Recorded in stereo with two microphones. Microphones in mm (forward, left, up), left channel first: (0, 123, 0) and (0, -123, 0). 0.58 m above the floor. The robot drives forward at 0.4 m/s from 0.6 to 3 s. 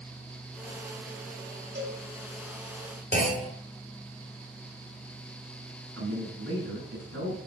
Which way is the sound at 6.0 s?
80° right.